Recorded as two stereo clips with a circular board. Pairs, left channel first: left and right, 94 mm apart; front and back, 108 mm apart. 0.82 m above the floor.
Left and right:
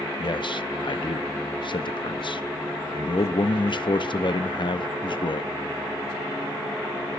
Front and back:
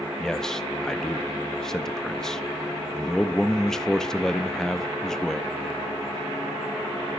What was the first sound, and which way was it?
A man speaking, 85° left.